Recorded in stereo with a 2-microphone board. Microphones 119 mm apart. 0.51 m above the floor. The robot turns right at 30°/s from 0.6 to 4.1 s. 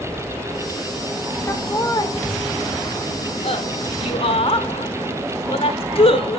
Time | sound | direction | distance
1.5 | laughter | 25° left (ahead or behind) | 1.6 m